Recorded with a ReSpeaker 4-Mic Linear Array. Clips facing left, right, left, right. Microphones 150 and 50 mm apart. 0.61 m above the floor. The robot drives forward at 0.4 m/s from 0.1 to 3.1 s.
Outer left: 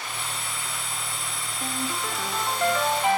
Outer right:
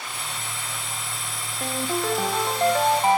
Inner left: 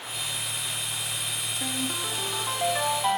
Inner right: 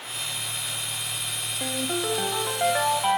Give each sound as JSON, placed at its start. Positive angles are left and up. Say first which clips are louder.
{"t": 1.6, "sound": "a ringtone", "louder": "outer right 5 dB, inner right 5 dB", "side_deg": -50, "distance_m": 2.0}